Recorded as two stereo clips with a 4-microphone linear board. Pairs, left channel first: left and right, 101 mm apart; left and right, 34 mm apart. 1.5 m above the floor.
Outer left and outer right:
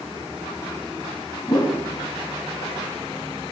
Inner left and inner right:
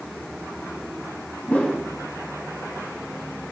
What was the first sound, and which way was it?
A whoosh, 40° left (ahead or behind).